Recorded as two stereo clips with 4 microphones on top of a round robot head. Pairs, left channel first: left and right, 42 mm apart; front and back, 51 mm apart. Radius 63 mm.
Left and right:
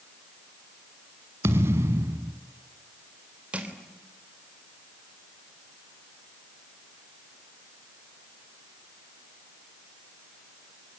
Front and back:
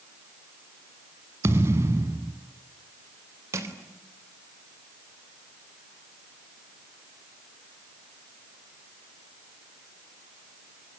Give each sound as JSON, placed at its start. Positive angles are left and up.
{"t": 1.4, "sound": "a thud", "azimuth_deg": -130, "distance_m": 1.3}
{"t": 3.5, "sound": "crushing", "azimuth_deg": -155, "distance_m": 3.5}